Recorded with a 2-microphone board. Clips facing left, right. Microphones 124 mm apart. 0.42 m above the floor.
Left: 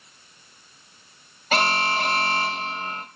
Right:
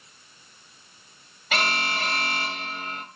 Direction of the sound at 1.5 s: 40° left (ahead or behind).